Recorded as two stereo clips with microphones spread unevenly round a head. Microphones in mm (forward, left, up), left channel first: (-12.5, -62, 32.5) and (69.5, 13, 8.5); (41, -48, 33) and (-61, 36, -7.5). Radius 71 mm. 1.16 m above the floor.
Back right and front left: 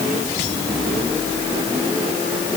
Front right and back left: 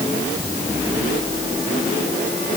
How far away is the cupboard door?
No cupboard door in this recording.